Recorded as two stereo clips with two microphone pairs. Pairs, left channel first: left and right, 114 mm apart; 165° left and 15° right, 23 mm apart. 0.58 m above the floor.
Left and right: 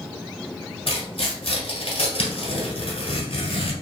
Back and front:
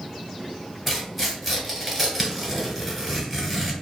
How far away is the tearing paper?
About 1.3 m.